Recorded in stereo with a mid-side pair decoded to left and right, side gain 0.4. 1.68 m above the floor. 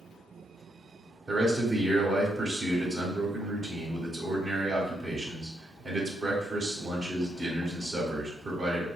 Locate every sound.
1.3 s a man speaking: 40° right, 1.3 m